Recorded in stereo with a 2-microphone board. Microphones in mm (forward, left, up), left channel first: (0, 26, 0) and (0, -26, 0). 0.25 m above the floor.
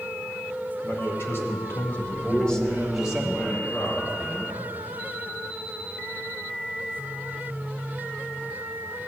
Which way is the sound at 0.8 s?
55° left (ahead or behind).